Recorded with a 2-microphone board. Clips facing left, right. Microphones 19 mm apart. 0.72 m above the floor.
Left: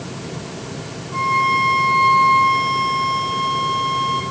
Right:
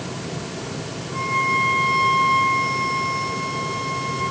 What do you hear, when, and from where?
1.1 s a violin: 35° left (ahead or behind), 2 m